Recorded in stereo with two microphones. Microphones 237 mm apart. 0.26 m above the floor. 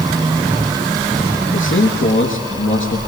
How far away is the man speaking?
About 3.5 m.